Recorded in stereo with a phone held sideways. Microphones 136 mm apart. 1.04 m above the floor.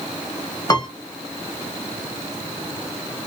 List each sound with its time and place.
0.7 s a piano: 30° left (ahead or behind), 0.8 m